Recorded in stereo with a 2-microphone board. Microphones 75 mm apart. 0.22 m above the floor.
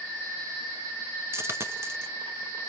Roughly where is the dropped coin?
Right.